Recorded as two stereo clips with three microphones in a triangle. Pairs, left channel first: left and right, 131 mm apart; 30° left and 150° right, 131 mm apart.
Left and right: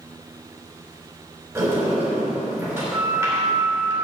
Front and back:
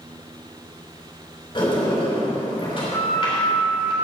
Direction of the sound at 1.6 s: 20° right.